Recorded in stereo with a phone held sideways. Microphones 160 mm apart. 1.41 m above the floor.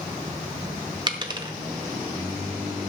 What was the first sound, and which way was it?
A dropped coin, 30° right (ahead or behind).